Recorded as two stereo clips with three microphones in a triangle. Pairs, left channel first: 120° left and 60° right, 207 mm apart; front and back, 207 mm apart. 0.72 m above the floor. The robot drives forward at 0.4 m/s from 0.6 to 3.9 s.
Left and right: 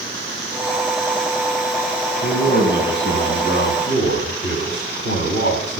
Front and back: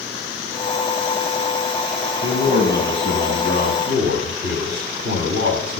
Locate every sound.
2.2 s a man speaking: 145° left, 5 m; by 5.8 s 150° left, 5.5 m